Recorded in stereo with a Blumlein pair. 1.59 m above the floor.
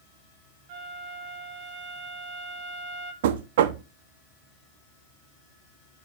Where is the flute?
45° right, 1.2 m.